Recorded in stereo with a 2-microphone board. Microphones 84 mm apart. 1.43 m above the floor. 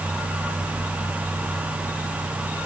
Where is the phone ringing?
No phone ringing in this recording.